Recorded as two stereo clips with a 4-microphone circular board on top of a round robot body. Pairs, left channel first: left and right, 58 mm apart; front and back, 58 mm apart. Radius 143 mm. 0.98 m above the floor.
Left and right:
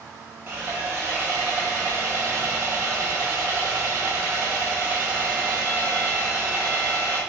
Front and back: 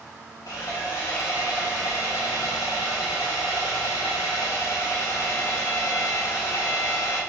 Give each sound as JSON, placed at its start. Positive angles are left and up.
{"t": 0.5, "sound": "sawing", "azimuth_deg": -30, "distance_m": 0.5}